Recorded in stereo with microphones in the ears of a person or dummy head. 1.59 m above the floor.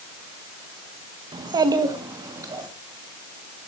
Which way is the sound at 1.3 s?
20° right (ahead or behind).